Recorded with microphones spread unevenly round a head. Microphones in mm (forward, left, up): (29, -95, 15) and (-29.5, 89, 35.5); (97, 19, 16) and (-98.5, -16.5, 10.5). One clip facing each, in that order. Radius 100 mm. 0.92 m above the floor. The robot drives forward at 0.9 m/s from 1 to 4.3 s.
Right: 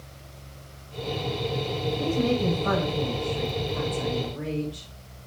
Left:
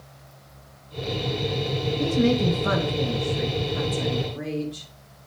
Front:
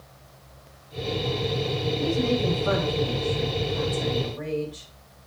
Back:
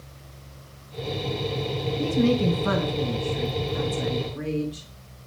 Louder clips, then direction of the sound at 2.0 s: Left 4 dB, back 4 dB; 165° left.